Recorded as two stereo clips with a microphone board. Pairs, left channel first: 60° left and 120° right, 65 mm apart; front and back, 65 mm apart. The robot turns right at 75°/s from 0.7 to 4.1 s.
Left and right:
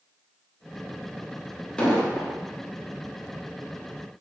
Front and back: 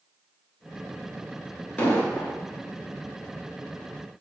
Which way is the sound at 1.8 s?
10° left.